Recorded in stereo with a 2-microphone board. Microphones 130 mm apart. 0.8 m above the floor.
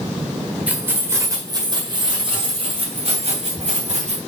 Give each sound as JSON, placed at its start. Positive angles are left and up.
{"t": 0.7, "sound": "keys jangling", "side_deg": -10, "distance_m": 1.6}